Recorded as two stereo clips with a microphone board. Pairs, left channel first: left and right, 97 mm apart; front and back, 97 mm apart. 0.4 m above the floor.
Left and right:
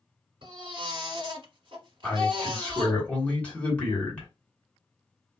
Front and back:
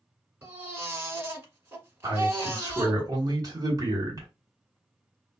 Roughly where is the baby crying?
Behind right.